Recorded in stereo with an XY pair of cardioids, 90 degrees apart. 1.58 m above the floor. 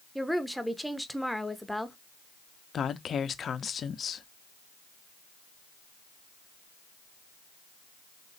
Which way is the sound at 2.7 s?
55° left.